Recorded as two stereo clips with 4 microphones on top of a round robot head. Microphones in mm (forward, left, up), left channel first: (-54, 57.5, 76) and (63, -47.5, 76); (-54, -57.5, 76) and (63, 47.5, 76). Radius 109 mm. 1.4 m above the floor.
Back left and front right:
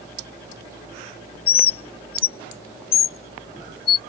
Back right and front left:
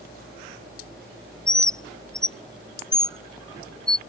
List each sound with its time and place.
1.5 s a bird: 135° left